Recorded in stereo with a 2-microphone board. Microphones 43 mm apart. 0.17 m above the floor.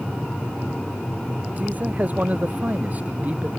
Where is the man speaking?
40° right (ahead or behind); by 3.5 s 35° right (ahead or behind).